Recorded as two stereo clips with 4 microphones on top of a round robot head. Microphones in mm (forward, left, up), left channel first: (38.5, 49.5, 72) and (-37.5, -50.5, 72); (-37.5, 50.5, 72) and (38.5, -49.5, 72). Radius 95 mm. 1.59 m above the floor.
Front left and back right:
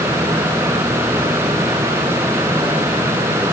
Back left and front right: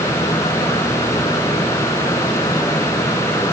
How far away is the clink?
No clink in this recording.